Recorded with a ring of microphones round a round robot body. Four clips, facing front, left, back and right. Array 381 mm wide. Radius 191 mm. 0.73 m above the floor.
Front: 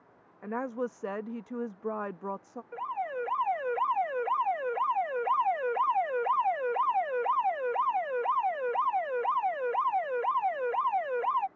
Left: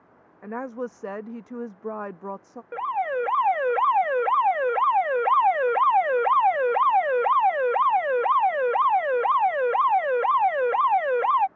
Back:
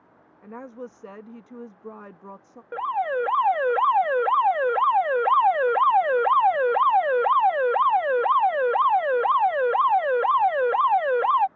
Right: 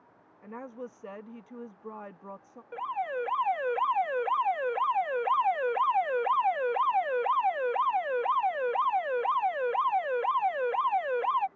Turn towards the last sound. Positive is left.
turn(degrees=145)